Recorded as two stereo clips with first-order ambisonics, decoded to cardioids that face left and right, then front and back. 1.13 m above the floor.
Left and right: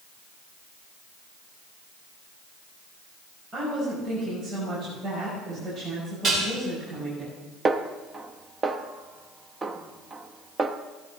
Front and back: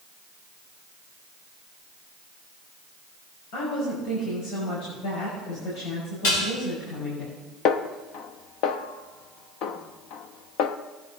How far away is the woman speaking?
About 6 m.